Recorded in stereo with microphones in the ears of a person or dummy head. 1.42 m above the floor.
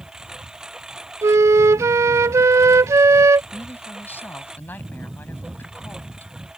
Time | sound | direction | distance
0.0 | a lawn mower | 5° right (ahead or behind) | ?
1.2 | a flute | 15° right (ahead or behind) | ?
3.5 | a woman speaking | 10° left (ahead or behind) | ?